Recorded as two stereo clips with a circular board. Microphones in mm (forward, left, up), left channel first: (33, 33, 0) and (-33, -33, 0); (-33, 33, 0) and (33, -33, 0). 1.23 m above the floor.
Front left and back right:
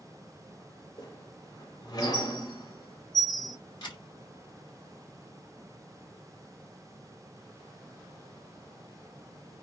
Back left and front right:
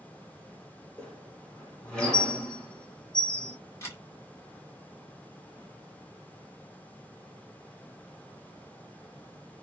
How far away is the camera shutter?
About 1.6 m.